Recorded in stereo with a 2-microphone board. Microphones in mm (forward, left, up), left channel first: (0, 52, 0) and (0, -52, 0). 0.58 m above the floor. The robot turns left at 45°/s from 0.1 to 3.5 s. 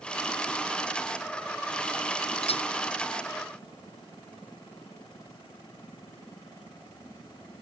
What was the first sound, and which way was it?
A clink, 70° left (ahead or behind).